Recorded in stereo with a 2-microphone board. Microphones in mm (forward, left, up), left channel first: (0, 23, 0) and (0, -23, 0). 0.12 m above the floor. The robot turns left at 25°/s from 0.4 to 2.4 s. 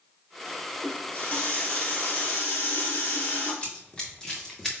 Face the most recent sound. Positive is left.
turn(degrees=5)  # may be behind; listen again after turning